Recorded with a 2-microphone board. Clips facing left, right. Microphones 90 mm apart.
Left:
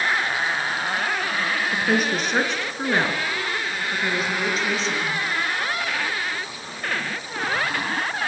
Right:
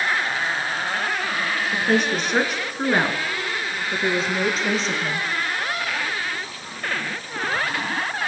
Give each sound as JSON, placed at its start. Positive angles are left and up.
{"t": 1.7, "sound": "a woman speaking", "side_deg": 10, "distance_m": 3.5}